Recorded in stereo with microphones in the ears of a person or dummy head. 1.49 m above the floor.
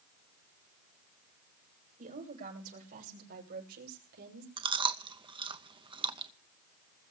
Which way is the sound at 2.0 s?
40° right (ahead or behind).